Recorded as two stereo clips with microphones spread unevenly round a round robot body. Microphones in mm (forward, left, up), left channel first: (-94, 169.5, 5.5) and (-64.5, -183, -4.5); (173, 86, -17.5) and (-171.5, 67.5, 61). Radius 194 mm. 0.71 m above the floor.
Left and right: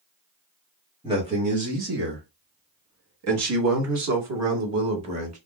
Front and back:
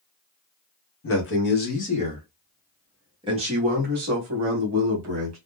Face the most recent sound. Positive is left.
turn(degrees=-125)